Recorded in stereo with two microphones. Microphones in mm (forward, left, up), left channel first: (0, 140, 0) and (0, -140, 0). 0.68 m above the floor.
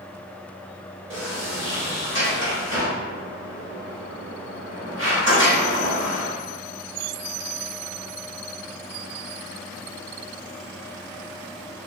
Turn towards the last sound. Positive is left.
turn(degrees=-45)  # may be behind; listen again after turning